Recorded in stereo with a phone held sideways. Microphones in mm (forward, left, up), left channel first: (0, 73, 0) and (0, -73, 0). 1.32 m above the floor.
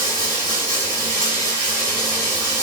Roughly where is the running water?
Left.